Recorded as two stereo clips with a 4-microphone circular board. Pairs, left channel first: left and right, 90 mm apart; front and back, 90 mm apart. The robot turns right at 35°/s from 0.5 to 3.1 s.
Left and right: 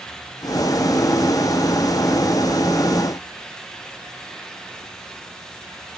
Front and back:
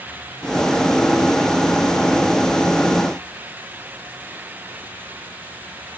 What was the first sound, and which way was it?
Only background noise.